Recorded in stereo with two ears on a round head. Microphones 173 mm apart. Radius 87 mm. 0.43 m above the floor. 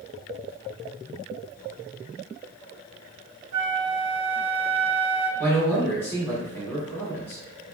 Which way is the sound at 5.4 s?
10° left (ahead or behind).